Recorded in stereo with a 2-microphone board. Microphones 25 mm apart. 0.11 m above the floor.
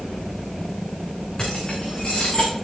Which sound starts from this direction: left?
Keys jangling, at 1.4 s.